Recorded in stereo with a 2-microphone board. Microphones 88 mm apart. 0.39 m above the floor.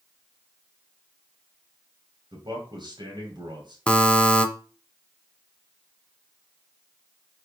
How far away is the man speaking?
About 1.7 m.